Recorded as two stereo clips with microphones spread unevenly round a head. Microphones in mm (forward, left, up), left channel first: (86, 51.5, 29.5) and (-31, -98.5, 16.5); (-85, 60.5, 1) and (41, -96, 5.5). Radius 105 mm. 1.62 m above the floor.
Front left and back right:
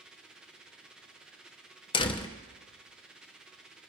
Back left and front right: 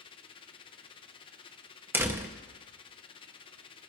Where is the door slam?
20° left, 0.6 m.